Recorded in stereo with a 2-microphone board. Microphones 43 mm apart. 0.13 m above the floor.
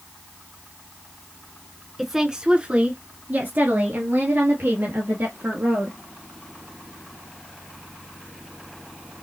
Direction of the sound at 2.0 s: 5° right (ahead or behind).